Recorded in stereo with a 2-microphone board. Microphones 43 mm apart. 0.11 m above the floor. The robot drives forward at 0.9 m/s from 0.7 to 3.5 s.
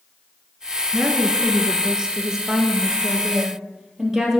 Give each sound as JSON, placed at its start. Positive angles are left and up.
{"t": 0.9, "sound": "a woman speaking", "side_deg": -20, "distance_m": 1.3}